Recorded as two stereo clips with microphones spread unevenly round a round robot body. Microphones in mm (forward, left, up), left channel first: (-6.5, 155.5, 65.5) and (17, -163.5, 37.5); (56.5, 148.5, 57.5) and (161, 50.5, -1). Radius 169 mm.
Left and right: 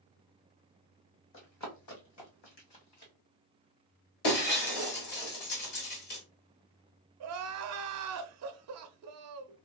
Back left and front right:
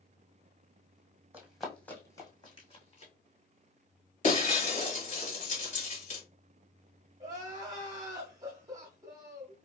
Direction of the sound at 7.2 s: 80° right.